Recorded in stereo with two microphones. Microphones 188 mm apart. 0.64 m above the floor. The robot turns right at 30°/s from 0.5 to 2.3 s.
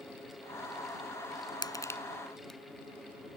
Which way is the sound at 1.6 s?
25° left (ahead or behind).